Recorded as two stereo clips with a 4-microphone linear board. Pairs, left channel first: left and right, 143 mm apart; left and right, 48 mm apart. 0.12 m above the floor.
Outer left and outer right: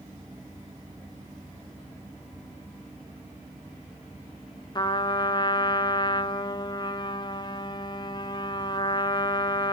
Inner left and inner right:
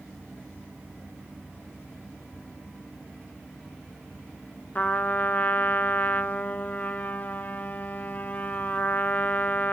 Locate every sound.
4.8 s a trumpet: 30° left (ahead or behind), 0.8 m